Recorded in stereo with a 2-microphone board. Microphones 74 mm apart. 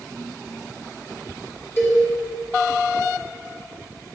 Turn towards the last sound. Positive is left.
turn(degrees=35)  # may be behind; listen again after turning